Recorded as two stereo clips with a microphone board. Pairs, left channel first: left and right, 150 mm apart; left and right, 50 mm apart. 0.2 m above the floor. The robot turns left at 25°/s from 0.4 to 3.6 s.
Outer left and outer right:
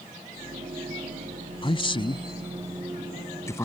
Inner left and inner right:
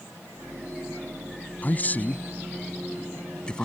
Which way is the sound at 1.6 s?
35° left (ahead or behind).